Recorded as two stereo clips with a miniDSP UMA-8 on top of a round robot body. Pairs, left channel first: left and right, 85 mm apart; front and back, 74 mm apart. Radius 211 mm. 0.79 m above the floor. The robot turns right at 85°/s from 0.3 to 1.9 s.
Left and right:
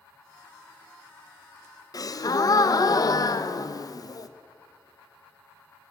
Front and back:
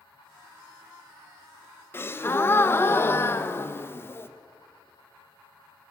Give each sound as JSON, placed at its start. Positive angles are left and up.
{"t": 1.9, "sound": "a gasp", "azimuth_deg": 55, "distance_m": 1.2}